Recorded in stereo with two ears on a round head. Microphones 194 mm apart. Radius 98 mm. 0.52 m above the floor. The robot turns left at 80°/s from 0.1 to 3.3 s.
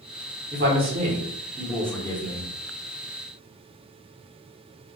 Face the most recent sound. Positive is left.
turn(degrees=60)